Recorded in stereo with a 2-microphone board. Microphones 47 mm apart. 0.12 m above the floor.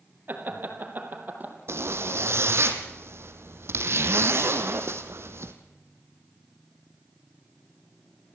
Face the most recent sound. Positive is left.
turn(degrees=-60)  # may be behind; listen again after turning